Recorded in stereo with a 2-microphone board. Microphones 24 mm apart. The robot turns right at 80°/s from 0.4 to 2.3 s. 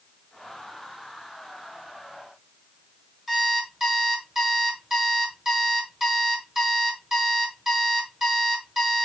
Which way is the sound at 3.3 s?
10° right (ahead or behind).